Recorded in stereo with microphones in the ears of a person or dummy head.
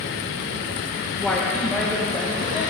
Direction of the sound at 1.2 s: 10° left (ahead or behind).